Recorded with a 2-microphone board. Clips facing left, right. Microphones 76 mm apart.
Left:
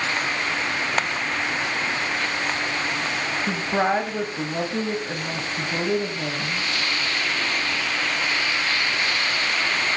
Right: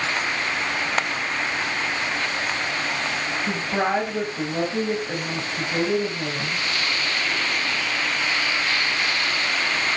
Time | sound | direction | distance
3.5 | a woman speaking | 15° left (ahead or behind) | 3 m